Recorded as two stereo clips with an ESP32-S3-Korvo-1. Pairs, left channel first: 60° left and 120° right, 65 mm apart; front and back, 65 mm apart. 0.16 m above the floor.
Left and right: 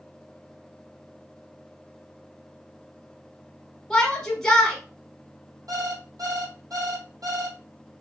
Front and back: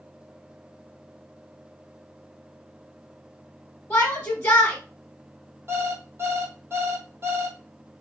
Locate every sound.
3.9 s a shout: 20° right, 1.1 m
5.7 s an alarm clock: 130° right, 2.5 m